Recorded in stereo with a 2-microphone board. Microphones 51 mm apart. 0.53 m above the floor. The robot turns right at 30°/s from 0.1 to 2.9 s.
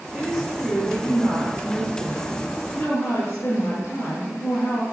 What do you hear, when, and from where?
0.1 s a woman speaking: 10° right, 9 m; by 4.8 s 70° left, 9 m